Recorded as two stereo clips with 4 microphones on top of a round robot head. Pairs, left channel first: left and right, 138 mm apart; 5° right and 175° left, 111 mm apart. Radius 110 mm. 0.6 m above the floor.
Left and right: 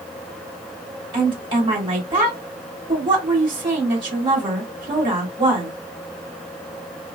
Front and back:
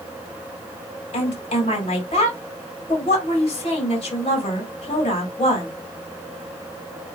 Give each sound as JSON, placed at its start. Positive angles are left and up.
{"t": 1.1, "sound": "a woman speaking", "azimuth_deg": -35, "distance_m": 2.5}